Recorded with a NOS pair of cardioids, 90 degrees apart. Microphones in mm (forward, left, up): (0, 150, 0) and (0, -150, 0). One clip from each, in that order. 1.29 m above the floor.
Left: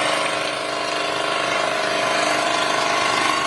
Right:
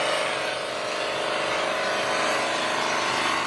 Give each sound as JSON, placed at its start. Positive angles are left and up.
{"t": 0.0, "sound": "an engine running", "azimuth_deg": 45, "distance_m": 0.9}